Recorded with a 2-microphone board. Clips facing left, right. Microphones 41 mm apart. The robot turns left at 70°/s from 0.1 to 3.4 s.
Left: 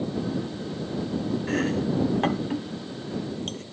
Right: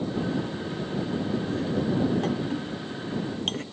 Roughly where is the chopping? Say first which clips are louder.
Left 4 dB; left.